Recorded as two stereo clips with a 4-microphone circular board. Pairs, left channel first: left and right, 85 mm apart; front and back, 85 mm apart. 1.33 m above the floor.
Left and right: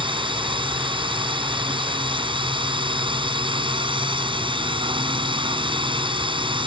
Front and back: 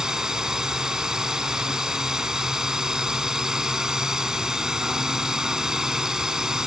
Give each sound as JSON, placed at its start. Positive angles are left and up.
{"t": 0.0, "sound": "a drone", "azimuth_deg": -95}